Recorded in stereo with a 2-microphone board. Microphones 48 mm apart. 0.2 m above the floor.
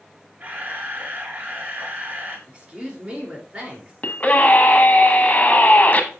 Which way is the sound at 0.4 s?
35° right (ahead or behind).